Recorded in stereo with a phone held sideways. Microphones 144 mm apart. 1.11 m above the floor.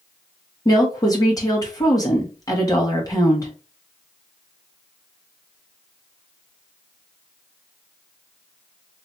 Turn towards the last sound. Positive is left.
turn(degrees=25)  # may be behind; listen again after turning